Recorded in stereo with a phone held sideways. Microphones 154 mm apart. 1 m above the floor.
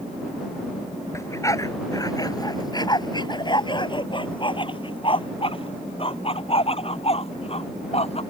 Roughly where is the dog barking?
Centre.